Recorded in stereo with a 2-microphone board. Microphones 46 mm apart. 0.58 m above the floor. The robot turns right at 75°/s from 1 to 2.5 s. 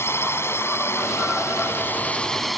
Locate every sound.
0.0 s a drone: 65° left; by 2.6 s straight behind